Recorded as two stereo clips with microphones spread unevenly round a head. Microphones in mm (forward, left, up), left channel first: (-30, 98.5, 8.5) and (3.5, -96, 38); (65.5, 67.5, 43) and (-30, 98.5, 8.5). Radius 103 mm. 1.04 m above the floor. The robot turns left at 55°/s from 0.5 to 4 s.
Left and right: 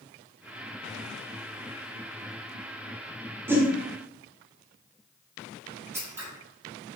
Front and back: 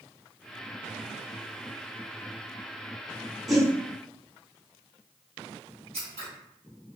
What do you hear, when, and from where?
3.5 s a whoosh: 160° right, 0.6 m; by 3.7 s 175° right, 0.6 m
5.9 s scissors: 145° right, 0.7 m